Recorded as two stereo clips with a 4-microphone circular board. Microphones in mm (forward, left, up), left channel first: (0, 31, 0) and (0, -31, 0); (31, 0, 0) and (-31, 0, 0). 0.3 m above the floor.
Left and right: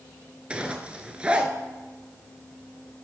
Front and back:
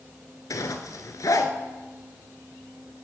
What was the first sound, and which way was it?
A zipper, 20° right.